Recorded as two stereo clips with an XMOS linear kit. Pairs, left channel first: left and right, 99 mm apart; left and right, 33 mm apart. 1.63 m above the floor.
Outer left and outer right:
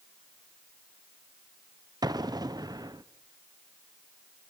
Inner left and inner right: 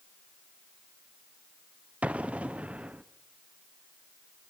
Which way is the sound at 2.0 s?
40° right (ahead or behind).